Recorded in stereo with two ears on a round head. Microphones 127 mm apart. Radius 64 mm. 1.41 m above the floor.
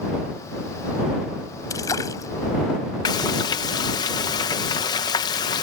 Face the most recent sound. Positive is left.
turn(degrees=30)  # may be behind; listen again after turning